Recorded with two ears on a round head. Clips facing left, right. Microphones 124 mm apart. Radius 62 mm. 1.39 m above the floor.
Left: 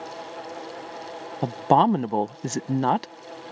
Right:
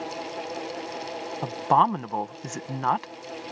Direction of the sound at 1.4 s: 45° left (ahead or behind).